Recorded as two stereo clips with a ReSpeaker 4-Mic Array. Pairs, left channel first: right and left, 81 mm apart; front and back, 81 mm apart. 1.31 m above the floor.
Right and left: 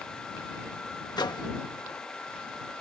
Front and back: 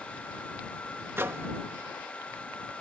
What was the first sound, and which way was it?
A microwave, 120° right.